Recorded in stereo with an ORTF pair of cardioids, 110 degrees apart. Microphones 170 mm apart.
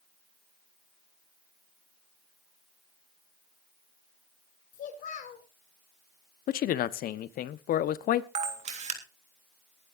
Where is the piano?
No piano in this recording.